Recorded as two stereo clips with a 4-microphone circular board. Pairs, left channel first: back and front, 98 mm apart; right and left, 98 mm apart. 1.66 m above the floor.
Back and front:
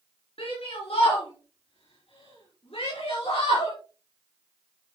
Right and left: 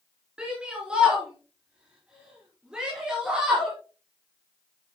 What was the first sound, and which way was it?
A shout, 170° left.